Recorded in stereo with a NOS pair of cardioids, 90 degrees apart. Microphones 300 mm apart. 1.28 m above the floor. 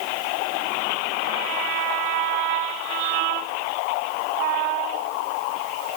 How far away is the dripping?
No dripping in this recording.